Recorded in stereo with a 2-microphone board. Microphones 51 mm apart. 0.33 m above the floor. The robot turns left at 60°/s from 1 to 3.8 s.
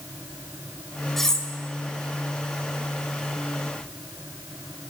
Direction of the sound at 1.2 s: 5° left (ahead or behind).